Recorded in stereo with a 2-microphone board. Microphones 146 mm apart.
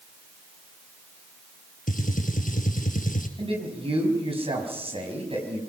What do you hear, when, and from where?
1.9 s a gunshot: 70° left (ahead or behind), 2 m
3.4 s a man speaking: 40° right (ahead or behind), 5 m